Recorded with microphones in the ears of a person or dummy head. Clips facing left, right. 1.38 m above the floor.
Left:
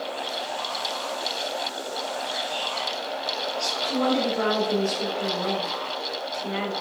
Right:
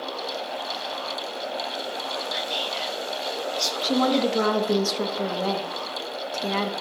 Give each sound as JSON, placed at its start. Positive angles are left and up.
{"t": 2.3, "sound": "whispering", "side_deg": -35, "distance_m": 0.7}
{"t": 3.8, "sound": "a woman speaking", "side_deg": -55, "distance_m": 0.7}